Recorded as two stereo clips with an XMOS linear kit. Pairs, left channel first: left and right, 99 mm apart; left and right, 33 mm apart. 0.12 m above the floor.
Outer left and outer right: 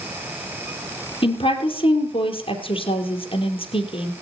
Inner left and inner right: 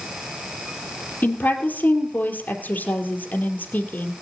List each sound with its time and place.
1.2 s a woman speaking: 60° left (ahead or behind), 3 m